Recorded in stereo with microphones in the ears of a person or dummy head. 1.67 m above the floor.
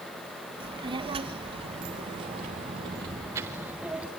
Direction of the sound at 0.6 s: 25° right (ahead or behind).